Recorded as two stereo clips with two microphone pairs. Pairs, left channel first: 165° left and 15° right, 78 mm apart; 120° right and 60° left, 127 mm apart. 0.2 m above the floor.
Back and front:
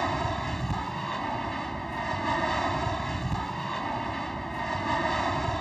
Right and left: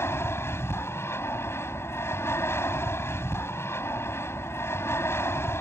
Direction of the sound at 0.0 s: 115° right.